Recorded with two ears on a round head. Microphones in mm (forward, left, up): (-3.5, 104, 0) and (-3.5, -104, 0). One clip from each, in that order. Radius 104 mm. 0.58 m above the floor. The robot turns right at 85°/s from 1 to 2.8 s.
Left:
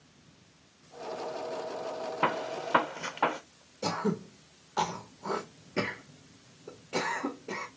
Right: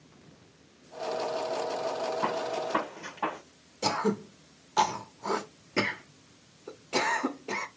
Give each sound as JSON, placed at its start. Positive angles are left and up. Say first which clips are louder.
{"t": 2.2, "sound": "a gunshot", "louder": "even", "side_deg": 85, "distance_m": 1.2}
{"t": 3.8, "sound": "throat clearing", "louder": "right 3 dB", "side_deg": -25, "distance_m": 0.7}